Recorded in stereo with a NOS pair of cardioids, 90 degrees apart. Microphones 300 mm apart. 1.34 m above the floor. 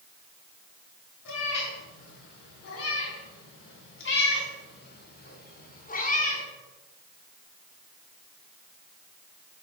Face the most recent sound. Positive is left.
turn(degrees=25)